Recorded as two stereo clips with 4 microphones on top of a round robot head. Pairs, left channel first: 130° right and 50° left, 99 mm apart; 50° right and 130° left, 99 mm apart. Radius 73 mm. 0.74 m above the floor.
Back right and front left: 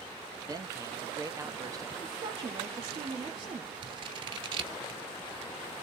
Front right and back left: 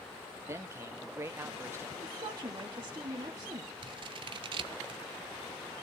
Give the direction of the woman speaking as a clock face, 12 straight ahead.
10 o'clock.